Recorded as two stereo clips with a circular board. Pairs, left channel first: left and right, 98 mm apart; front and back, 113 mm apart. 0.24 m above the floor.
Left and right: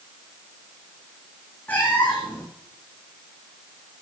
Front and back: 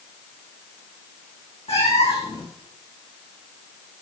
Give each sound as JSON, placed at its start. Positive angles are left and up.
{"t": 1.7, "sound": "a cat meowing", "azimuth_deg": 20, "distance_m": 3.5}